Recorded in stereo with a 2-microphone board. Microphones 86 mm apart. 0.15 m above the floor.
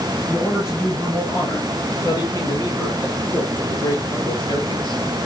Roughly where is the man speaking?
Left.